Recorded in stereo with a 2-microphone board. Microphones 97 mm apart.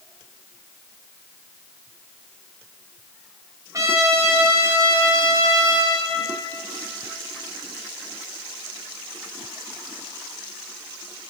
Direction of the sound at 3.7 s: 35° right (ahead or behind).